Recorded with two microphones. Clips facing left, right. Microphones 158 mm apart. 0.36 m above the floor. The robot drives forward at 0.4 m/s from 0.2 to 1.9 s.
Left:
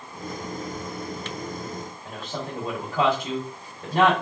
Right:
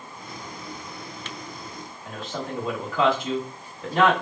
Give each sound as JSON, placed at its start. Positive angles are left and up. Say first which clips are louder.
{"t": 2.0, "sound": "a man speaking", "louder": "right 3 dB", "side_deg": 55, "distance_m": 1.7}